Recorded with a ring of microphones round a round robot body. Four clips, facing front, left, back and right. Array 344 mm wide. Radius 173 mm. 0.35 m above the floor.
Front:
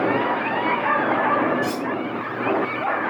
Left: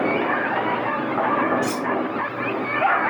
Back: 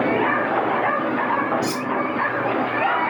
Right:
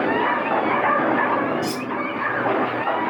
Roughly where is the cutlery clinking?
Behind left.